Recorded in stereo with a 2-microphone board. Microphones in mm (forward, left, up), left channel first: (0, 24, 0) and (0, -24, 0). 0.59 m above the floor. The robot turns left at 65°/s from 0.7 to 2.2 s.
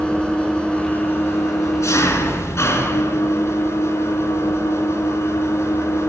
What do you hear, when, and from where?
0.0 s an engine running: 160° left, 3 m; by 6.1 s 60° left, 3 m